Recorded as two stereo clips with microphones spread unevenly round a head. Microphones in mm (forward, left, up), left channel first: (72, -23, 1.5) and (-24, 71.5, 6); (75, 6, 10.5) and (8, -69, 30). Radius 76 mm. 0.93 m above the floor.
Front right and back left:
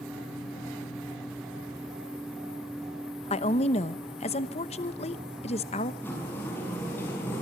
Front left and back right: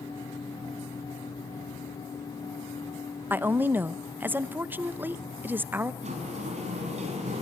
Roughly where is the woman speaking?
Ahead right.